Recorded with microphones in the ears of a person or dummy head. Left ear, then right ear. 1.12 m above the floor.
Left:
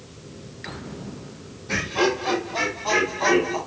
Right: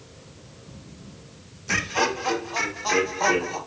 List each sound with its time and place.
1.7 s laughter: 65° right (ahead or behind), 0.9 m; by 3.6 s 85° right, 1.9 m